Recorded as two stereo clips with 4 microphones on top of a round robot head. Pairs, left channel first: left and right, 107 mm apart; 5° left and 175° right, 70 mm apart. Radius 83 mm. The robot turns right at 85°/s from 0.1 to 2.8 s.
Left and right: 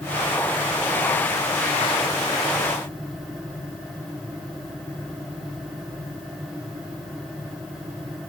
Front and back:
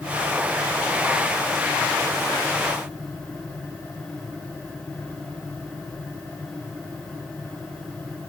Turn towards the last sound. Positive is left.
No sound to turn to.